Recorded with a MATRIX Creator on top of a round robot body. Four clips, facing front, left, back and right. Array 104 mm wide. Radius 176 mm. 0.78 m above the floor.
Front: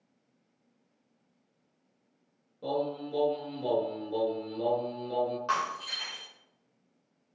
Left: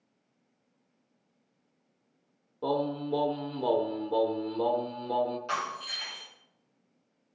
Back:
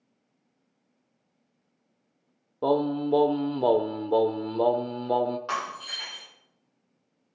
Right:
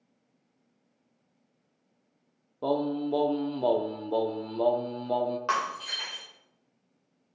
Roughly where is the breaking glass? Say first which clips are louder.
Right 4 dB, front 1 dB; right.